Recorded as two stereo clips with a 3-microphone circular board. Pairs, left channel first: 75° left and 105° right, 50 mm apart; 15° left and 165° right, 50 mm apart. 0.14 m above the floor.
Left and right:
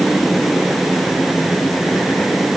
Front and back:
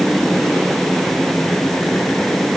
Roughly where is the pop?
I don't hear a pop.